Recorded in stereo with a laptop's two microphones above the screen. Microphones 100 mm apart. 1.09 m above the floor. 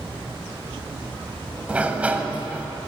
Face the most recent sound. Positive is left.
turn(degrees=-15)  # may be behind; listen again after turning